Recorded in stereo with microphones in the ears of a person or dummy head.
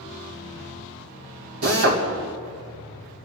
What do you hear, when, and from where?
1.6 s a drill: 80° right, 2.5 m